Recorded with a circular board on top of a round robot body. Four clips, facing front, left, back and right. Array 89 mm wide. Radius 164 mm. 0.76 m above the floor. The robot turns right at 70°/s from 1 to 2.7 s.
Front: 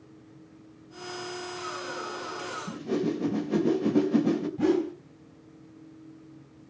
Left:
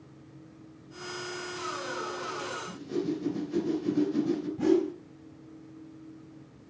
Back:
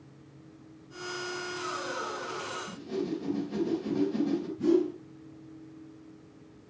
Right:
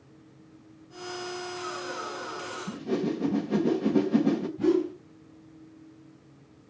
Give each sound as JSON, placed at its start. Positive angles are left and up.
{"t": 2.7, "sound": "a whoosh", "azimuth_deg": -50, "distance_m": 3.0}
{"t": 4.6, "sound": "a whoosh", "azimuth_deg": 15, "distance_m": 4.5}